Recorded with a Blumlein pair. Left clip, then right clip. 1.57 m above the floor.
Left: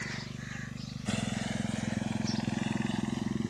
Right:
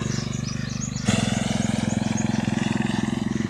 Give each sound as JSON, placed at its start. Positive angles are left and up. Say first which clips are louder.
{"t": 0.0, "sound": "a motorcycle", "louder": "right 9 dB", "azimuth_deg": -55}